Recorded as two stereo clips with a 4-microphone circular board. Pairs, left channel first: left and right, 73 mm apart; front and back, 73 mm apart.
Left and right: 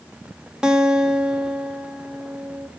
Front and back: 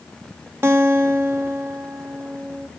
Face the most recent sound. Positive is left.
turn(degrees=-165)